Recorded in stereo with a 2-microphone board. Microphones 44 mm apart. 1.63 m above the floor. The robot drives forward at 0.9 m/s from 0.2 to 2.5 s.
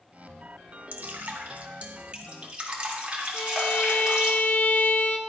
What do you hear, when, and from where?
0.9 s dripping: 50° right (ahead or behind), 1.2 m; by 4.3 s 25° right (ahead or behind), 2 m
3.3 s a violin: 50° left (ahead or behind), 0.9 m